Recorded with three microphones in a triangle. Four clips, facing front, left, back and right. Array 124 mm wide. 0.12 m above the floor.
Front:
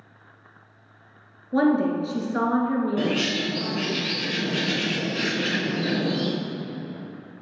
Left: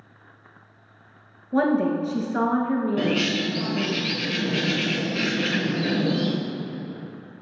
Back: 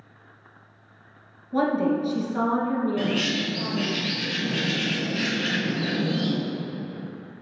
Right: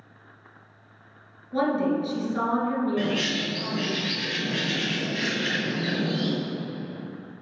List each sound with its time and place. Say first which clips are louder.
1.5 s a woman speaking: left 3 dB, front 2 dB; 50° left, 2 m
3.0 s a bird: left 3 dB, front 1 dB; 45° left, 2 m